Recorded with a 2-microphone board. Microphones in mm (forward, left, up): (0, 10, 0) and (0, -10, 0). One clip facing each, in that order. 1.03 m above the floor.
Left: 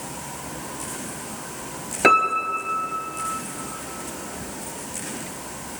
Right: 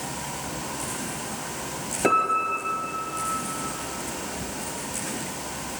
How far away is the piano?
About 2.5 m.